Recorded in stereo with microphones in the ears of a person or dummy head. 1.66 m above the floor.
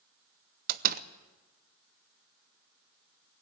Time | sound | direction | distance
0.7 | a door slam | 45° right (ahead or behind) | 0.6 m